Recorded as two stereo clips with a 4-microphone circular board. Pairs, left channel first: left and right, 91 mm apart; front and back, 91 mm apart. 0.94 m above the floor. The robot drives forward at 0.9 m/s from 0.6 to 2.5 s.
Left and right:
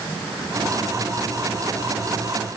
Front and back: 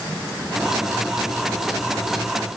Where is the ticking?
No ticking in this recording.